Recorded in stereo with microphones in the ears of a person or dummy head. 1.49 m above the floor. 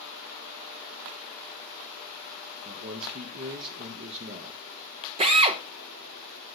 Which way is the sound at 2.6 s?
50° right (ahead or behind).